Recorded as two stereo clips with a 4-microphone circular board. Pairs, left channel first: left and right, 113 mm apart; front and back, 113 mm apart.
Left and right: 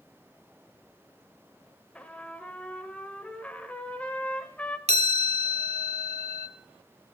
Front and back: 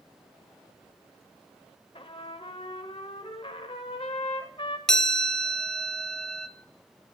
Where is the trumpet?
15° left, 1.0 m.